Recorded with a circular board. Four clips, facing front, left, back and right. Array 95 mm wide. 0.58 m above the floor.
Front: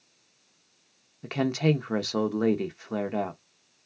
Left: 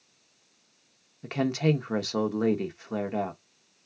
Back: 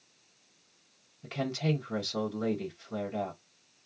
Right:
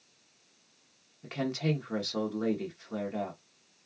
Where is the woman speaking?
35° left, 0.9 m.